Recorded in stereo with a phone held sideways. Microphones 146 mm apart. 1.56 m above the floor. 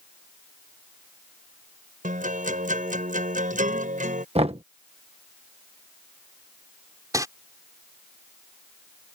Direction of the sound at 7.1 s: 25° right (ahead or behind).